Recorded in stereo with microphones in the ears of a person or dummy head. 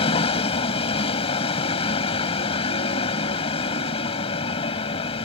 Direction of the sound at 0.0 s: 35° left (ahead or behind).